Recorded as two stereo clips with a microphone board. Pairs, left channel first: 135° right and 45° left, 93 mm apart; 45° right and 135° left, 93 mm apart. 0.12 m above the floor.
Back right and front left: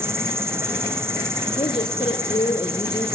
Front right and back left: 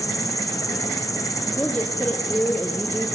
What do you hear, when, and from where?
0.0 s an insect: 5° right, 3.5 m
1.6 s a woman speaking: 120° right, 4.5 m